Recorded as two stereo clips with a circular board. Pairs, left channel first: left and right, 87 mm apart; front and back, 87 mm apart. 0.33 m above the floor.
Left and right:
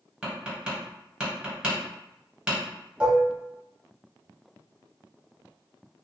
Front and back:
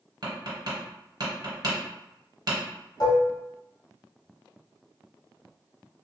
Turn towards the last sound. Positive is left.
turn(degrees=-20)